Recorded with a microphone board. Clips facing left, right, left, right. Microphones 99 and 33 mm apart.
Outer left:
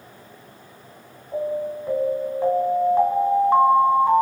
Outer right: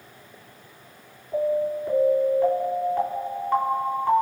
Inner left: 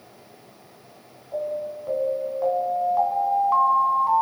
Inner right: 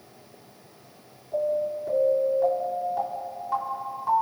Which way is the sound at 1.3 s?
25° left (ahead or behind).